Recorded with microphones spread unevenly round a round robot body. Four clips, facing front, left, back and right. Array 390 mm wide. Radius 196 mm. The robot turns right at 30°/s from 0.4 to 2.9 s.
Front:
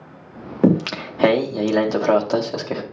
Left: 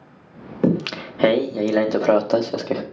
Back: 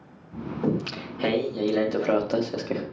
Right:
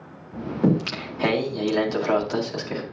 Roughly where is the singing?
Ahead left.